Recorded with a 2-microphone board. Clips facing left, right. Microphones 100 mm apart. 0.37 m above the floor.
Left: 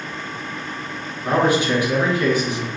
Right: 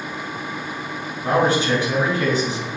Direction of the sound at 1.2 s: 30° right (ahead or behind).